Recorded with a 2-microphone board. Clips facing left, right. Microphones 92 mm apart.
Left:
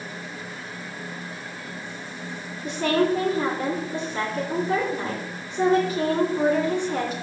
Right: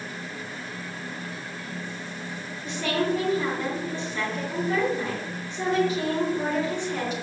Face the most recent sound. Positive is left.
turn(degrees=45)  # may be behind; listen again after turning